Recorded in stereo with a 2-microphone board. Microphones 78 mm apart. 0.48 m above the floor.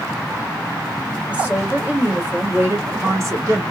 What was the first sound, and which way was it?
A woman speaking, 15° right (ahead or behind).